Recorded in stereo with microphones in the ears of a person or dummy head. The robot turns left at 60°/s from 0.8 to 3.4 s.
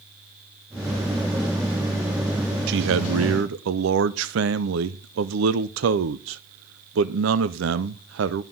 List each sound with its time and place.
2.7 s a man speaking: 65° right, 0.5 m; by 8.4 s 110° right, 0.5 m